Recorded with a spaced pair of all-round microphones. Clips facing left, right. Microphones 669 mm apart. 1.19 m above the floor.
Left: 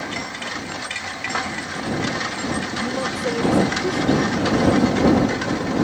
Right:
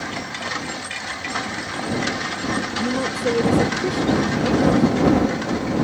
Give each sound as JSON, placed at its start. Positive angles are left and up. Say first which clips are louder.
{"t": 2.8, "sound": "a woman speaking", "louder": "right 2 dB", "side_deg": -50}